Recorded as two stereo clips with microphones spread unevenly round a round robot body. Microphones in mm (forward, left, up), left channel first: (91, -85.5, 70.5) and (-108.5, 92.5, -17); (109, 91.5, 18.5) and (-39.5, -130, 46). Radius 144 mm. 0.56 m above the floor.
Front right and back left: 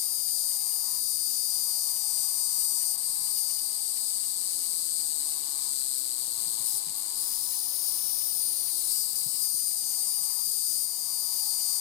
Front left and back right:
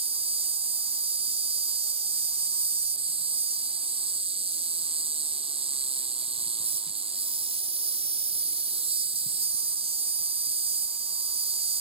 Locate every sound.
0.0 s an insect: 55° right